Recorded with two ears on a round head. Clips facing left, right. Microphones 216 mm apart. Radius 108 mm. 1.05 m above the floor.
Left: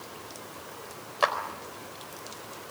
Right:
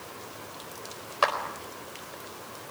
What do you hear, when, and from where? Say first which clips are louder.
1.2 s a clap: even; 5° right (ahead or behind), 4 m